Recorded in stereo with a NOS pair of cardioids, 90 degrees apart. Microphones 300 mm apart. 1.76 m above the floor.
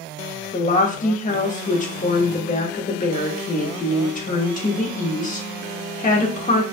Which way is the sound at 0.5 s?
25° left.